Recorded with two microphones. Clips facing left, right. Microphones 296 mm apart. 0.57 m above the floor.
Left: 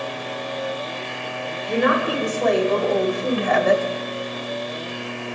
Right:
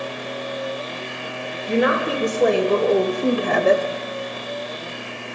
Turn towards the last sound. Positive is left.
turn(degrees=-25)  # may be behind; listen again after turning